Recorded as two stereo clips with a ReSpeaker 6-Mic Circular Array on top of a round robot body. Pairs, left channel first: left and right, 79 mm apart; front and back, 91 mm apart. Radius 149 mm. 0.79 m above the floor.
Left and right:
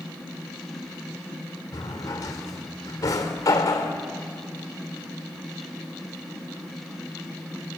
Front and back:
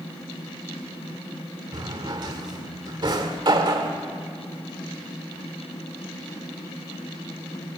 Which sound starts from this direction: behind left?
A drawer, at 1.7 s.